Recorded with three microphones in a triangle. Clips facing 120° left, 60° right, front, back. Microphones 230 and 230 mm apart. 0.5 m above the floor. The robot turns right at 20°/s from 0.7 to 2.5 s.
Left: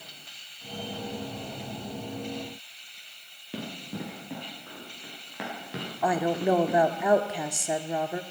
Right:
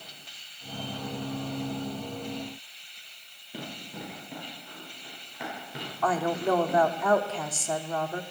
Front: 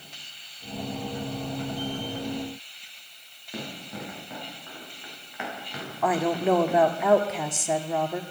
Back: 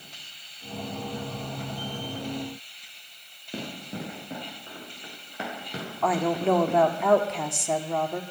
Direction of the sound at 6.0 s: 80° left.